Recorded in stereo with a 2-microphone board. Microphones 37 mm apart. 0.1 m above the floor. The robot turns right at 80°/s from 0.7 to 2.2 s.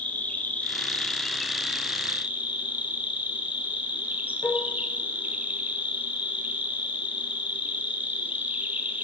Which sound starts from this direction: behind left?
An insect, at 0.0 s.